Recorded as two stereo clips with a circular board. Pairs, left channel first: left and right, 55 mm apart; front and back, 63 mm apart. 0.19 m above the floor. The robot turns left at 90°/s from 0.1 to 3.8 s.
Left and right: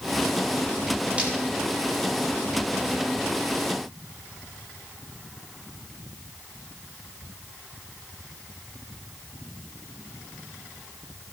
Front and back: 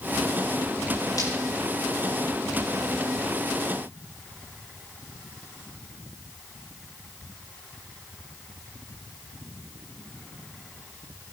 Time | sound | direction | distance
1.2 | breaking glass | 25° right | 7.5 m